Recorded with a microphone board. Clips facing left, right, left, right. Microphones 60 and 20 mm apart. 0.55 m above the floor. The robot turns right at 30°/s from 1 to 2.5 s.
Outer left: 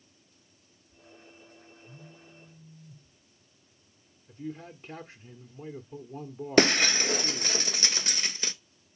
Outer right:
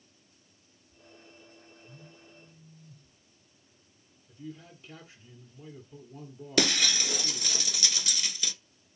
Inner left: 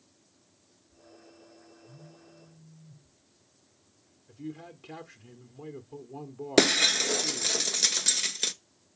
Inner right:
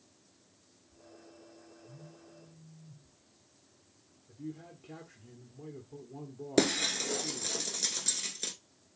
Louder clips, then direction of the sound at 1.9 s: Outer left 2 dB, inner left 1 dB; 55° left (ahead or behind).